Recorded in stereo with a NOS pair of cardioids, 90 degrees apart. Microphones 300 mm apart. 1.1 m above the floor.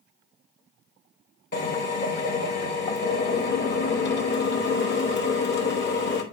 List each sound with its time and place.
1.5 s a drill: 35° left, 3.5 m